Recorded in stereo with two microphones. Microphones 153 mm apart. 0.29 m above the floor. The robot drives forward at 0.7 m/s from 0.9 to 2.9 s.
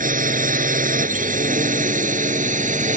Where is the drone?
60° right (ahead or behind); by 3.0 s 55° right (ahead or behind).